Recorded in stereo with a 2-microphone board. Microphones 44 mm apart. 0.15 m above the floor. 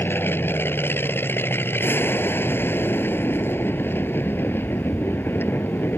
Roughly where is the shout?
I don't hear a shout.